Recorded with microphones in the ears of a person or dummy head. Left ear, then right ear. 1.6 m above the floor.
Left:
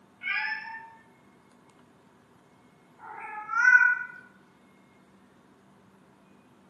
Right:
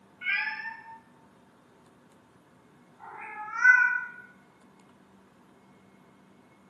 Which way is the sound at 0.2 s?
Centre (ahead or behind).